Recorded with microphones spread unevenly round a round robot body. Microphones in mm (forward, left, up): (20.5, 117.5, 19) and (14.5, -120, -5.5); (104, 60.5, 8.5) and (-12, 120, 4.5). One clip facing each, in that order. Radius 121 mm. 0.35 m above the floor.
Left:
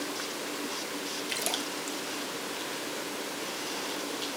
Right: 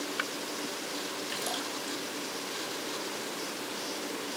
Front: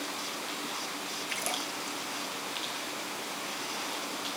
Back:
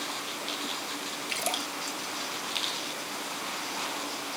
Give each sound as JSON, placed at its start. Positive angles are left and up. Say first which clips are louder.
{"t": 1.3, "sound": "a splash", "louder": "left 1 dB, back 4 dB", "azimuth_deg": 110, "distance_m": 1.5}